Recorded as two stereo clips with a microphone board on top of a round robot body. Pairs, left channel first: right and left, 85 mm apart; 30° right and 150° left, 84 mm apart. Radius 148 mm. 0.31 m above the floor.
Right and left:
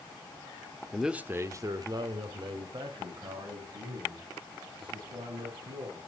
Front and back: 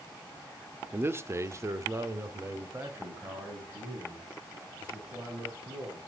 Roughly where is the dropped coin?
No dropped coin in this recording.